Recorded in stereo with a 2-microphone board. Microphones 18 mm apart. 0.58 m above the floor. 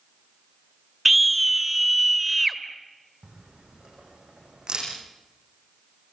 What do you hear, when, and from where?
1.1 s a scream: centre (ahead or behind), 1.6 m
3.2 s a camera shutter: 45° right (ahead or behind), 9.5 m